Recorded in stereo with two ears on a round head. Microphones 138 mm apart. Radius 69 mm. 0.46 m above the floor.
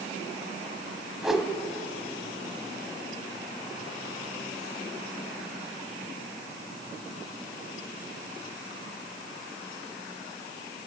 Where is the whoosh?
Centre (ahead or behind), 0.8 m.